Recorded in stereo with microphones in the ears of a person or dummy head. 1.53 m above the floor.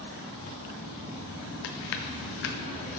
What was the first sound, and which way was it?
Chewing, 50° left (ahead or behind).